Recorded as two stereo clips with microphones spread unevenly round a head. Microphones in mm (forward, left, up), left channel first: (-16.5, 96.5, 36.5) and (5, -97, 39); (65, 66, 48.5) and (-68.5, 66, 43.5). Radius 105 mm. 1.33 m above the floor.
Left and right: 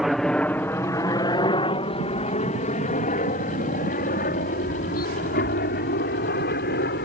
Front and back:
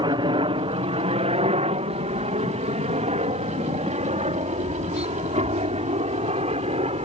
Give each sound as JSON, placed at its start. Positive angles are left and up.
{"t": 0.0, "sound": "a helicopter", "azimuth_deg": -170}